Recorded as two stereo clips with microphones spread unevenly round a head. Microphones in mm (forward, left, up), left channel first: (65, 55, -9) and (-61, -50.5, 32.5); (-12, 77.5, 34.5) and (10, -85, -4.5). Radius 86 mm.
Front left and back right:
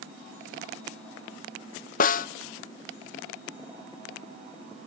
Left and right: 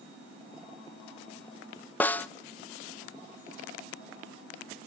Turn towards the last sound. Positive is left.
turn(degrees=10)